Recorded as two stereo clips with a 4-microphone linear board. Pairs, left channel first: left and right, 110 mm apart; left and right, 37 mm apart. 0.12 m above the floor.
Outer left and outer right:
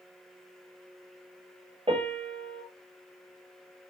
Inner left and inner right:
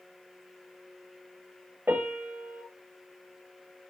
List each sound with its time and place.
1.9 s a piano: 60° right (ahead or behind), 1.7 m